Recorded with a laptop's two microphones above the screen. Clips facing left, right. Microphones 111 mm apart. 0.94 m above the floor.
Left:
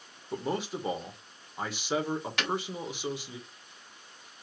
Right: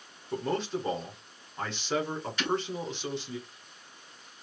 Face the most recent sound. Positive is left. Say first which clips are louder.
# right 4 dB
turn(degrees=75)  # may be behind; listen again after turning